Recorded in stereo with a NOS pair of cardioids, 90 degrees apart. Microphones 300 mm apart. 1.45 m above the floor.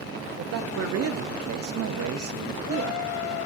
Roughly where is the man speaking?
Ahead right.